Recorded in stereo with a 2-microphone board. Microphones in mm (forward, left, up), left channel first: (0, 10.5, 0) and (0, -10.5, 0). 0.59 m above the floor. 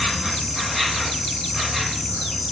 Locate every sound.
0.0 s an insect: 5° left (ahead or behind), 1.9 m